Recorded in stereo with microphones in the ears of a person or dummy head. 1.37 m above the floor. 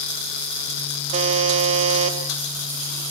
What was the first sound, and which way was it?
A buzzer, 35° right (ahead or behind).